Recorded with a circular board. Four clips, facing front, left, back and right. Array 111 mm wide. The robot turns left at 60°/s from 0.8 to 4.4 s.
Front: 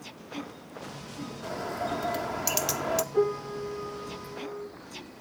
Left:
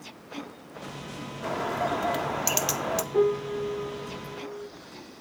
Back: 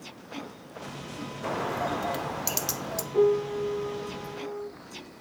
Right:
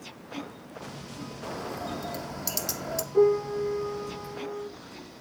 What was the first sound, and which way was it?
A bird, 150° left.